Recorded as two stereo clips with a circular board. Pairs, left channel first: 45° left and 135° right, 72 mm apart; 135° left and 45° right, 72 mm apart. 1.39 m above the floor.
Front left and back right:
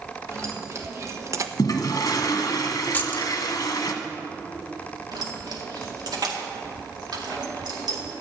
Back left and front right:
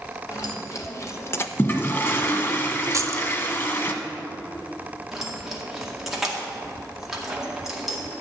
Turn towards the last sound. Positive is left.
turn(degrees=-130)